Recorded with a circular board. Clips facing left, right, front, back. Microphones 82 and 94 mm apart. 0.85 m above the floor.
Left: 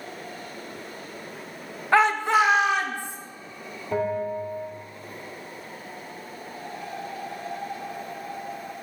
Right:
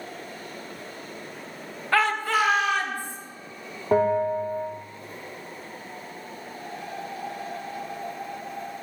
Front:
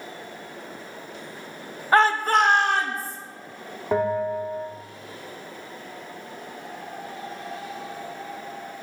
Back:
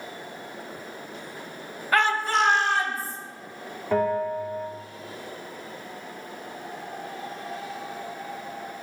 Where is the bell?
70° right, 2 m.